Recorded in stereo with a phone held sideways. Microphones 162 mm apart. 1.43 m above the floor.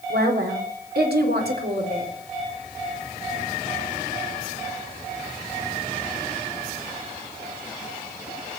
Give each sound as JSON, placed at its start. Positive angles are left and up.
{"t": 0.1, "sound": "a woman speaking", "side_deg": -85, "distance_m": 4.0}